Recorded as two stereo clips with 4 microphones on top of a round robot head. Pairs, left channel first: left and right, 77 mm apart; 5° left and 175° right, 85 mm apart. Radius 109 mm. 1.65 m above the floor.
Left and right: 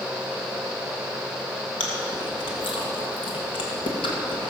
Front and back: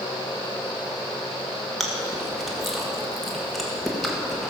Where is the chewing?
95° left, 2.0 m.